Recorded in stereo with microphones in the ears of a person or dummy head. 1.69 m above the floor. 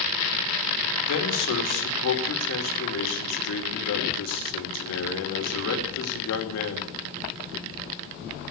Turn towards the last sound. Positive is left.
turn(degrees=70)  # may be behind; listen again after turning